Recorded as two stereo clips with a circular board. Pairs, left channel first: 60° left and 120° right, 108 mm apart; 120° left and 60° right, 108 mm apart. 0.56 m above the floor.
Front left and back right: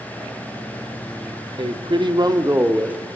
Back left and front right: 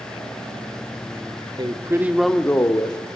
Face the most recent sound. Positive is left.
turn(degrees=165)